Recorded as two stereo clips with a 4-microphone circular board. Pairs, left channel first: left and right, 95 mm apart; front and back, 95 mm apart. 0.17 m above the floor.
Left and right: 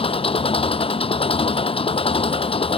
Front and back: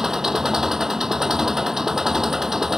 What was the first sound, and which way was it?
An engine running, 95° left.